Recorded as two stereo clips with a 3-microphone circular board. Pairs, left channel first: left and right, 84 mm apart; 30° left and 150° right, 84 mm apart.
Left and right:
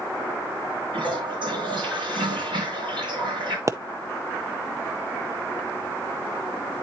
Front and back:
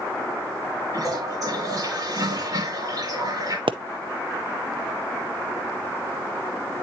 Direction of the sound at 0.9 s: 105° right.